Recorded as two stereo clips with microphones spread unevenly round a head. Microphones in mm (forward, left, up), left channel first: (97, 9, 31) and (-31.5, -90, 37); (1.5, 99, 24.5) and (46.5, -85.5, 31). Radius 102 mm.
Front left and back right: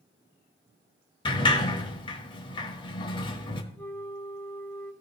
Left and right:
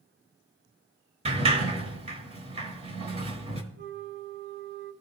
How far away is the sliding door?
About 1.2 m.